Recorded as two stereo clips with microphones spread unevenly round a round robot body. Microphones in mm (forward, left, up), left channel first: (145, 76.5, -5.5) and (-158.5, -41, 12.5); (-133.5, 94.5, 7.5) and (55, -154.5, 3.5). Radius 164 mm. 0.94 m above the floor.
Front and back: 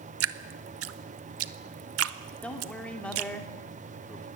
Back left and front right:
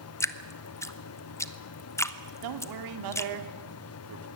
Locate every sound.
0.2 s dripping: 155° right, 0.8 m
2.4 s a man speaking: 65° right, 2.5 m